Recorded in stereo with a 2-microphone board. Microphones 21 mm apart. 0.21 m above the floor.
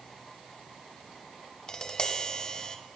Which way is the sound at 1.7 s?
35° left (ahead or behind).